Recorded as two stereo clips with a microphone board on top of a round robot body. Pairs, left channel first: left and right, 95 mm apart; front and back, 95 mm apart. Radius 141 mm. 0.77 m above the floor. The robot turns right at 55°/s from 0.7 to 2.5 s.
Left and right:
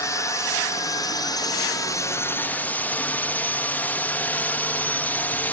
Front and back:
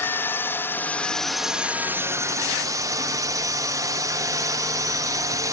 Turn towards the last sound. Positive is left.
turn(degrees=155)